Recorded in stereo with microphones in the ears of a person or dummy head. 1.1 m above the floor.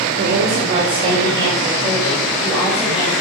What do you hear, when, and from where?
0.2 s a woman speaking: 50° right (ahead or behind), 3.5 m; by 3.1 s 5° right (ahead or behind), 6 m